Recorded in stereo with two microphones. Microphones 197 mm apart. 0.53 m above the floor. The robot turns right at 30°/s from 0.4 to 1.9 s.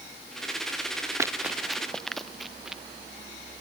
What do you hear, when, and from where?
1.2 s running footsteps: 15° right (ahead or behind); by 2.8 s 5° right (ahead or behind)